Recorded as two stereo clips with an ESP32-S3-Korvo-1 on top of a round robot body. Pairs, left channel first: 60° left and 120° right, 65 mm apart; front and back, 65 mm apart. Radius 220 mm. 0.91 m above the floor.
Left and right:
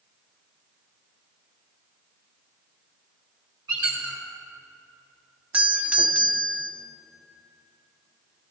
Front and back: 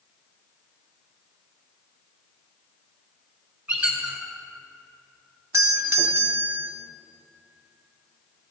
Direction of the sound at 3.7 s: 110° right.